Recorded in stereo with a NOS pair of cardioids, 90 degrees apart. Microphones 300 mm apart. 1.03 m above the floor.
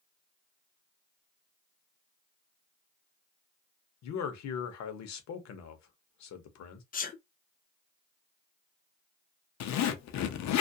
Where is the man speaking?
65° left, 0.9 m.